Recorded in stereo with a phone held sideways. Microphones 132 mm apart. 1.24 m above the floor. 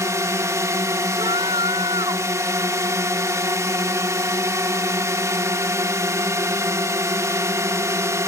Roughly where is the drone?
Right.